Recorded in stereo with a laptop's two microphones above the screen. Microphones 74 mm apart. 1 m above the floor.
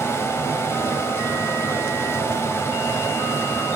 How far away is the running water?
About 1.6 m.